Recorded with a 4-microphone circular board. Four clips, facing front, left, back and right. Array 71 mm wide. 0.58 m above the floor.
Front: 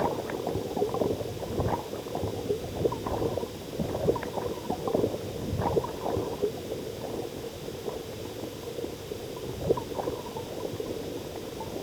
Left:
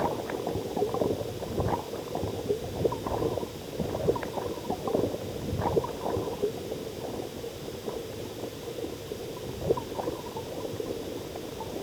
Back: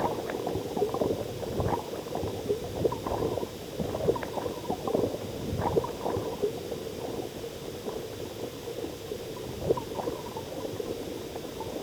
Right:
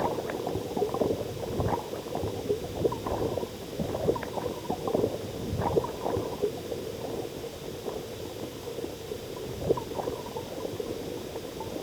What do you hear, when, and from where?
Only background noise.